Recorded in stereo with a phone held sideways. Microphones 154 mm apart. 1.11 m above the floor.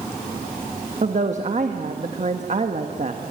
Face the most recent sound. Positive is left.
turn(degrees=-50)  # may be behind; listen again after turning